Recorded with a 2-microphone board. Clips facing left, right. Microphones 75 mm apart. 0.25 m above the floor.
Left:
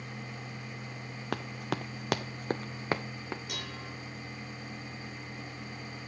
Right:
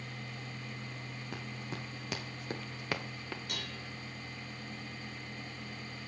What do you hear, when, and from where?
1.3 s running footsteps: 70° left (ahead or behind), 0.9 m; by 3.4 s 20° left (ahead or behind), 1.5 m
3.5 s dishes clattering: 5° left (ahead or behind), 2 m